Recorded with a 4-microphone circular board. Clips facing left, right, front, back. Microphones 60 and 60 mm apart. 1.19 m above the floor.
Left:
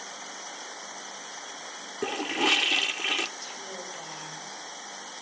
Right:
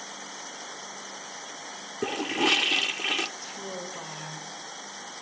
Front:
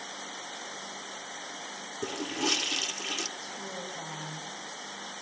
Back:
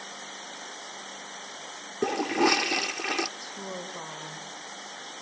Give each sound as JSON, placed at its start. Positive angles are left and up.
{"t": 2.0, "sound": "a toilet flushing", "azimuth_deg": 180, "distance_m": 0.7}
{"t": 3.4, "sound": "a woman speaking", "azimuth_deg": -155, "distance_m": 5.5}